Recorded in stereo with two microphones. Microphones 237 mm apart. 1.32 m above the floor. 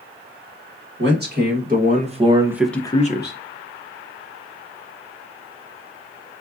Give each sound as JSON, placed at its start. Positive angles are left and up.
{"t": 1.0, "sound": "a man speaking", "side_deg": -45, "distance_m": 1.6}